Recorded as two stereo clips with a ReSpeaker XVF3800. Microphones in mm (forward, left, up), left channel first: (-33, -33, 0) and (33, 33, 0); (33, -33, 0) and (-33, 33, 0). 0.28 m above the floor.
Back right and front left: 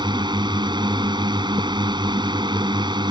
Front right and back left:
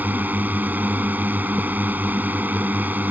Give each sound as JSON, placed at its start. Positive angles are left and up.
{"t": 0.0, "sound": "a drone", "azimuth_deg": 65}